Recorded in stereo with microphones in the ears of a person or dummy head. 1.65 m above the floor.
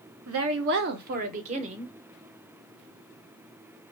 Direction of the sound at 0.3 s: 80° right.